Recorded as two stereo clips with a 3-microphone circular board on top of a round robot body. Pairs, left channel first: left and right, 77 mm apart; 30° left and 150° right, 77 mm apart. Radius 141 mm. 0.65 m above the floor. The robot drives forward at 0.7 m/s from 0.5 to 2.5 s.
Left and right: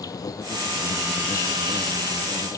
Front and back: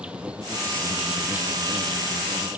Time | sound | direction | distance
0.0 | an insect | 130° left | ?